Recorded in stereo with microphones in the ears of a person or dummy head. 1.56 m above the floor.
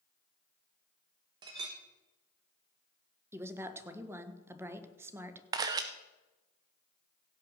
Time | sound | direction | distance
1.4 | a clink | 25° right (ahead or behind) | 1.0 m
3.3 | a woman speaking | 5° right (ahead or behind) | 1.3 m
5.5 | a camera shutter | 25° right (ahead or behind) | 0.5 m